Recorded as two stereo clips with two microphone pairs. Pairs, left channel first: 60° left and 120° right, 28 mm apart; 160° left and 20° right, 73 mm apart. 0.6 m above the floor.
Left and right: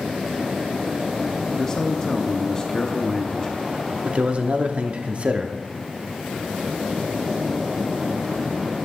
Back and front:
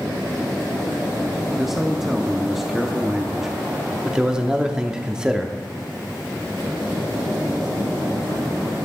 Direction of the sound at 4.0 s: 100° right.